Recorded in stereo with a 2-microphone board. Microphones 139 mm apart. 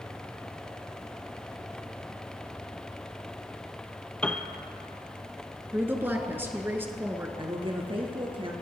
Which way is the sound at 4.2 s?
10° left (ahead or behind).